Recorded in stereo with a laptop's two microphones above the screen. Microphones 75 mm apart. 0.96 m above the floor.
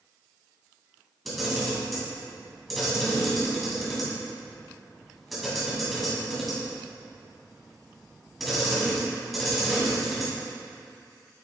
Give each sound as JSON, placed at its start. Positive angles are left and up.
{"t": 1.2, "sound": "a camera shutter", "side_deg": 0, "distance_m": 2.0}